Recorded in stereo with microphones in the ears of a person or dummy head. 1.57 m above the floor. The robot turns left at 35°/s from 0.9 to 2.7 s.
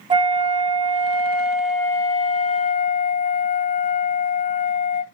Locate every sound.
0.1 s a flute: 155° right, 0.6 m; by 5.0 s 140° left, 0.6 m